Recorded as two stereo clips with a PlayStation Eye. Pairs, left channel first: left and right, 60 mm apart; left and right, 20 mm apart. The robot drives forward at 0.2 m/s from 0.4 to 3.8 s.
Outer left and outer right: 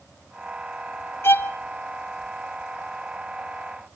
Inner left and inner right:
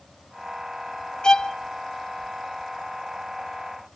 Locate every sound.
1.2 s a violin: 45° left (ahead or behind), 0.9 m; by 1.6 s 40° left (ahead or behind), 1.0 m